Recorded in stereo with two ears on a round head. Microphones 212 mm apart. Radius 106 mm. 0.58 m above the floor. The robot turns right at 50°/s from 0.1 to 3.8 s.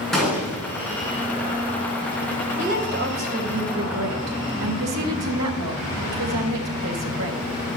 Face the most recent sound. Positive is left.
turn(degrees=-85)